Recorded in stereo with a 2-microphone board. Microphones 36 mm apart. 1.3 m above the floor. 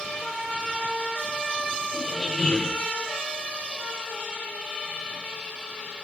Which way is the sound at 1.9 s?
15° left (ahead or behind).